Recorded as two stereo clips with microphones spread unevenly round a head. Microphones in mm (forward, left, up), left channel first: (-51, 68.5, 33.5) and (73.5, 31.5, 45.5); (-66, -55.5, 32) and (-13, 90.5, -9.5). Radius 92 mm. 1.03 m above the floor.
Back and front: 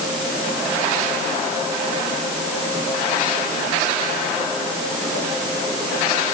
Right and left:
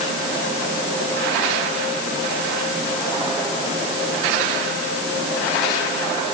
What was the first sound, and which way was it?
Only background noise.